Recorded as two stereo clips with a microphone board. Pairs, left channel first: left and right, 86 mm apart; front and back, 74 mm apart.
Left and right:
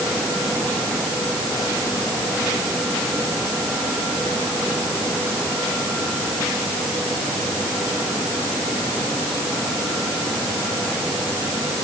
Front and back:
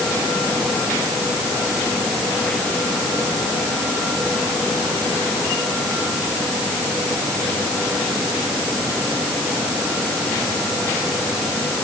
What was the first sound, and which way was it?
Only background noise.